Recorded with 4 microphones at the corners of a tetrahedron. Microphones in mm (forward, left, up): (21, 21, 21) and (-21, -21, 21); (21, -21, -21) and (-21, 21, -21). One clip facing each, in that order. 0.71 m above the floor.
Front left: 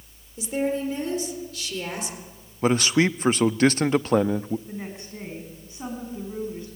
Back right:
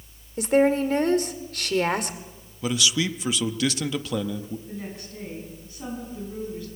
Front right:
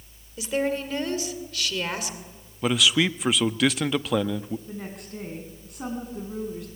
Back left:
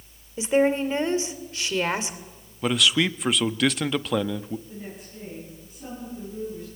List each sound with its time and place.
0.4 s a woman speaking: 160° right, 2 m
2.6 s a man speaking: 40° left, 0.6 m
4.7 s a woman speaking: 20° right, 6.5 m